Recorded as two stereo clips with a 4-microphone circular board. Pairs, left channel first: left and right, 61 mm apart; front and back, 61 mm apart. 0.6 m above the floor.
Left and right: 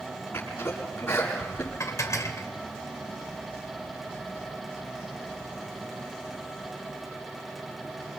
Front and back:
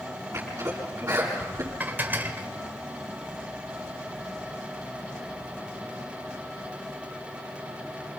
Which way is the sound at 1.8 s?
120° left.